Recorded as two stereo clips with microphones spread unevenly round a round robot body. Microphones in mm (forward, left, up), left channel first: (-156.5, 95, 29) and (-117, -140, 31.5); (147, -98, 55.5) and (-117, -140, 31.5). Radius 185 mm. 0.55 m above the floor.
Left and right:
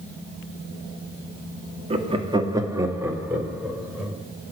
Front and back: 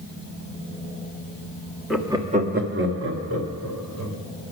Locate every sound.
1.9 s laughter: 90° right, 1.3 m; by 4.2 s 170° right, 3.5 m